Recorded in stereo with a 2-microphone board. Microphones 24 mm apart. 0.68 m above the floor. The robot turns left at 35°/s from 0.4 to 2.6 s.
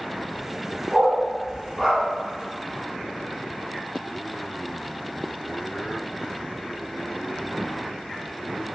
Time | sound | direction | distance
0.9 | a dog barking | 35° right (ahead or behind) | 1.7 m